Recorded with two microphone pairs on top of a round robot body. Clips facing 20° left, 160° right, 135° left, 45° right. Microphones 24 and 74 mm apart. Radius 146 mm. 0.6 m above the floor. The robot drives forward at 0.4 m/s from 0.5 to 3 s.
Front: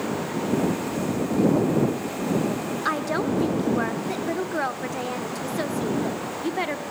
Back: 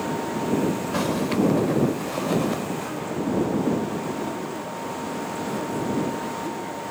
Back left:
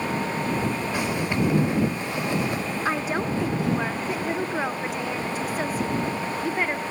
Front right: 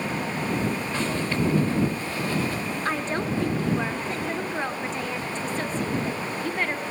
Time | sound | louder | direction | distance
0.9 | a zipper | back 1 dB, back left 1 dB | 145° right | 3 m
2.9 | a woman speaking | front 3 dB, back left 1 dB | 50° left | 1.8 m